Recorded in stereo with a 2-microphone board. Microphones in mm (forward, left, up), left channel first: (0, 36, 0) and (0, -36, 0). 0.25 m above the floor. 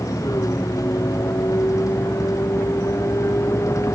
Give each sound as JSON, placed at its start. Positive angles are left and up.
{"t": 0.0, "sound": "a vehicle", "side_deg": 50}